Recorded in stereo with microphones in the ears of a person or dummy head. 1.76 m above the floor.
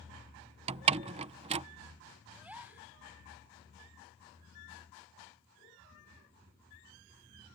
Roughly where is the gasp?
Centre.